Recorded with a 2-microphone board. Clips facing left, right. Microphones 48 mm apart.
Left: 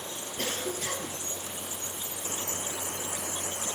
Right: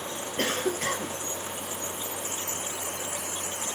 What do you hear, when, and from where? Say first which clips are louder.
0.4 s a cough: right 6 dB; 55° right (ahead or behind), 1.9 m